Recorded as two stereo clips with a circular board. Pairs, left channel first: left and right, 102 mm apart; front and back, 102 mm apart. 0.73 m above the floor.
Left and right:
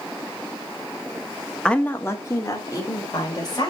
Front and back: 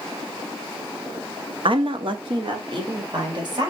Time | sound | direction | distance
1.6 | a woman speaking | 170° left | 0.9 m